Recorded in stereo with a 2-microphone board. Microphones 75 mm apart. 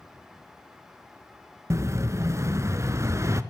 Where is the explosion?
40° right (ahead or behind), 0.6 m.